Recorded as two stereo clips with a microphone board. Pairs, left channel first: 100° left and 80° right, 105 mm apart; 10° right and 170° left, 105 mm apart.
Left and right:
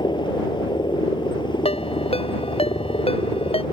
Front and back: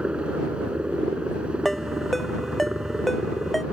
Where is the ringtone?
75° left.